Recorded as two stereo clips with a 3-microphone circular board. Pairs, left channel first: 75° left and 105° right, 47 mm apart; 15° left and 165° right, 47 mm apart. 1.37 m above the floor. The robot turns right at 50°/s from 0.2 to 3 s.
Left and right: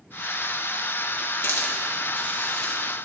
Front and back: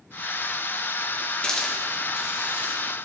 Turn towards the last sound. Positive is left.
turn(degrees=160)